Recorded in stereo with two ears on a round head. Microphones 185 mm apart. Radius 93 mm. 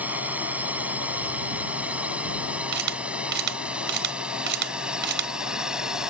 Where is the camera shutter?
60° right (ahead or behind).